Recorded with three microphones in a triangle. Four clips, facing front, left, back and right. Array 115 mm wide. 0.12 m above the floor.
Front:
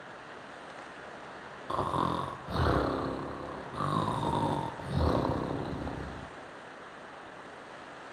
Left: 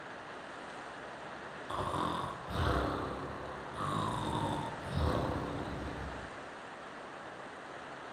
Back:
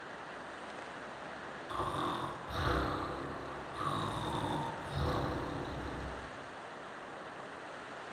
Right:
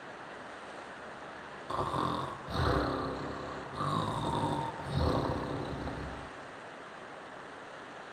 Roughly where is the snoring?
Ahead.